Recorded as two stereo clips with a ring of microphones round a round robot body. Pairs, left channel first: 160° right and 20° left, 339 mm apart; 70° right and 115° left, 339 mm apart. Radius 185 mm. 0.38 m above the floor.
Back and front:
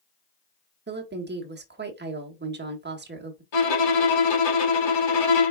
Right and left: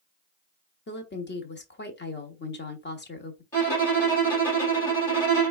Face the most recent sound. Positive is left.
turn(degrees=-150)